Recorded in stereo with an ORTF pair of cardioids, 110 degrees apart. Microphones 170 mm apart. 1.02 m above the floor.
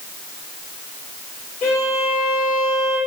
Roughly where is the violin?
Ahead left.